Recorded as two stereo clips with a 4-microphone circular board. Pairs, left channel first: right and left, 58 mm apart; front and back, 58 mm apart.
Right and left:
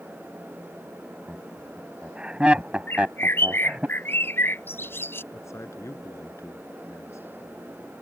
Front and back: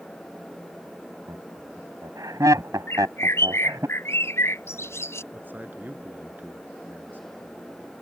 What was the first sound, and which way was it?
Laughter, 165° left.